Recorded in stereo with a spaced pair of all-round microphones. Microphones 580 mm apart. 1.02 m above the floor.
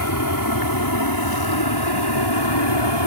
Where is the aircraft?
35° left (ahead or behind); by 3.1 s 50° left (ahead or behind).